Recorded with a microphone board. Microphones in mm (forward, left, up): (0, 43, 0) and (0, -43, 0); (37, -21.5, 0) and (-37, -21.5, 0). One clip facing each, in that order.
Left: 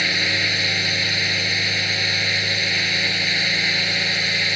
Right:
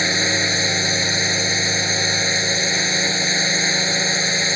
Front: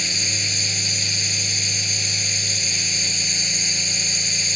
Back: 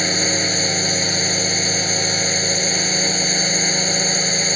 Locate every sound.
0.0 s a drone: 155° right